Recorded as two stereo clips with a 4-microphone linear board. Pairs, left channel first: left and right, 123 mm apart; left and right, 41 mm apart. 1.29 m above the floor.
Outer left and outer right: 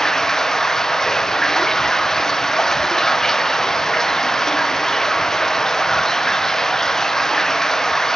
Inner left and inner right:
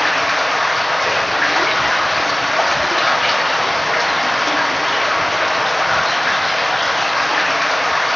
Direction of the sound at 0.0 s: 5° left (ahead or behind).